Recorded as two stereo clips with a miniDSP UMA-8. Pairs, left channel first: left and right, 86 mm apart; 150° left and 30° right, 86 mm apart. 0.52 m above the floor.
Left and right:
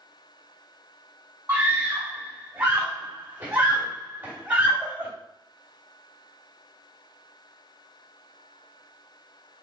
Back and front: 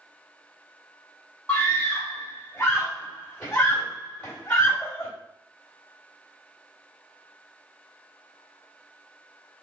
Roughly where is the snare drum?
I don't hear a snare drum.